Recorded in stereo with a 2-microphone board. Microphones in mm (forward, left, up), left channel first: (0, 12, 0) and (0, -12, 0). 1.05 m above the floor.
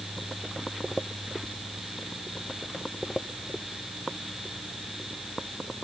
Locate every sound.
Only background noise.